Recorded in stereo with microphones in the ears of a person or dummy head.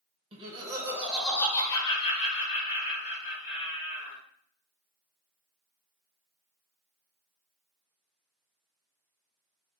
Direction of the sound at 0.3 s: 35° right (ahead or behind).